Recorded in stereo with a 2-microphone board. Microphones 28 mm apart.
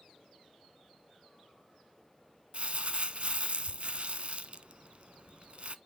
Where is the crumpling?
45° right (ahead or behind), 0.7 m.